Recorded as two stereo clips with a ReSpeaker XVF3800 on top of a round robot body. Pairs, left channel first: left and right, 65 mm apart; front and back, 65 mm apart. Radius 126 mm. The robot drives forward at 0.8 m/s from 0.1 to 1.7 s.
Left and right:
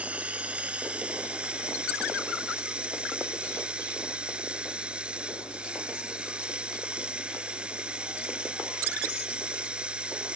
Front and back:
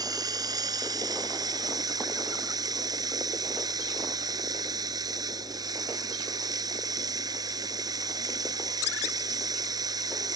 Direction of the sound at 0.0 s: 160° right.